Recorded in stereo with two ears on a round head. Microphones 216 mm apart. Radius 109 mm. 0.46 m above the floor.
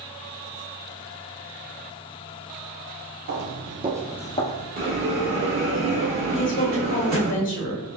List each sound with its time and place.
3.3 s footsteps: 55° right (ahead or behind), 1.4 m; by 4.7 s 45° left (ahead or behind), 1.1 m
4.8 s a bell: 40° right (ahead or behind), 1.5 m
6.3 s a woman speaking: 35° left (ahead or behind), 1.2 m